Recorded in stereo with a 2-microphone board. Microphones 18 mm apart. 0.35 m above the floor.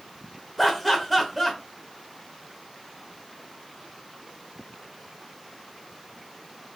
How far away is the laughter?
About 0.8 m.